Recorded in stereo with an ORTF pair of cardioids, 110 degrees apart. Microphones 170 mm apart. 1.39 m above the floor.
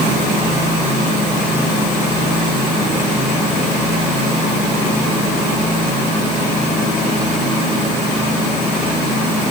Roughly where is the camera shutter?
I don't hear a camera shutter.